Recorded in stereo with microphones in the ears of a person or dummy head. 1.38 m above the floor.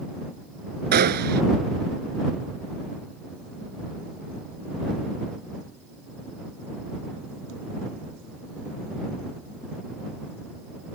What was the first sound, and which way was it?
A gunshot, 50° right (ahead or behind).